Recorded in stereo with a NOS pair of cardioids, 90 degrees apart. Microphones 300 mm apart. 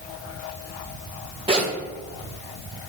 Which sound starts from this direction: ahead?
A zipper, at 1.5 s.